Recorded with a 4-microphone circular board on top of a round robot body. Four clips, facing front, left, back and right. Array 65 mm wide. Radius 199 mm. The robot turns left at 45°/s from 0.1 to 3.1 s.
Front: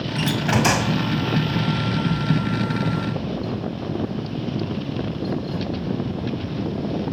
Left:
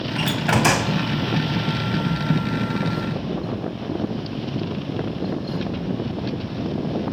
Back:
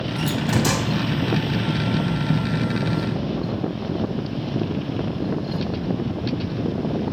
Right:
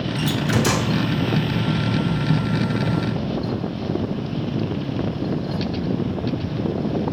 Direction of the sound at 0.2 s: 80° left.